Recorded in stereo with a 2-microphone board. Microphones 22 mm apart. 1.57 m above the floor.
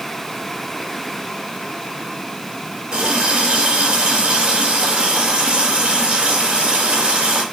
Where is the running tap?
45° right (ahead or behind), 4 m.